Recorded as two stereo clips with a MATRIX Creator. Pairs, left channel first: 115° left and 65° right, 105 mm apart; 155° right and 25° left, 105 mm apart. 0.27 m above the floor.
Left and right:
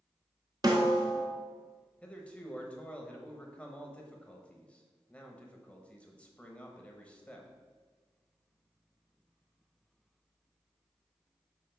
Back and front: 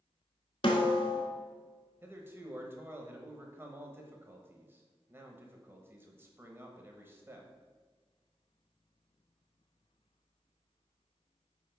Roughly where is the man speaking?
Ahead left.